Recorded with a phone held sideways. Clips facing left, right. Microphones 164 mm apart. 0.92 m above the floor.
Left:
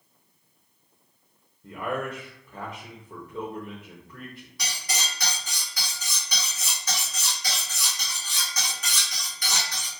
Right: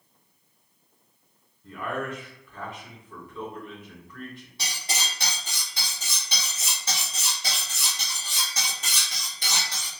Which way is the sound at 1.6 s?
40° left (ahead or behind).